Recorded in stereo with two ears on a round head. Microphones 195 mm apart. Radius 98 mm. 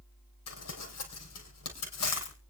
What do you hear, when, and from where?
0.5 s crumpling: 85° left, 4.5 m